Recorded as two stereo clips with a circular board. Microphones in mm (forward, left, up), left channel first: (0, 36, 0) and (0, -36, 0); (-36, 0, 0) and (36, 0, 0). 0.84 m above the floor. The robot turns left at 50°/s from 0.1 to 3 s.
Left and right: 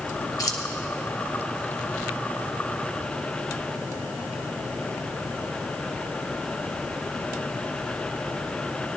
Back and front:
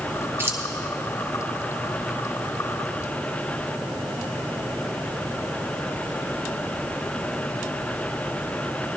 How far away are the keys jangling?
About 1.1 m.